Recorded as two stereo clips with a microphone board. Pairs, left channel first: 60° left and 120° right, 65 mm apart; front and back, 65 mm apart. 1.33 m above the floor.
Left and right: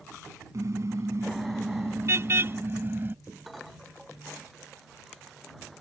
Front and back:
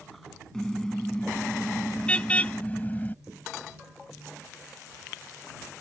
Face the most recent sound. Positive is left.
turn(degrees=-60)